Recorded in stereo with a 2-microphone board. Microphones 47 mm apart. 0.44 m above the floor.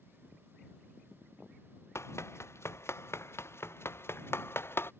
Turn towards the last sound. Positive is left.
turn(degrees=55)  # may be behind; listen again after turning